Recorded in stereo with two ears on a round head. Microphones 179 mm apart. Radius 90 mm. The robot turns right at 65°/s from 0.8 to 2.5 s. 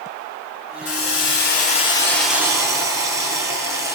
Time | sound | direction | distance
0.8 | a hiss | 85° left | 5.5 m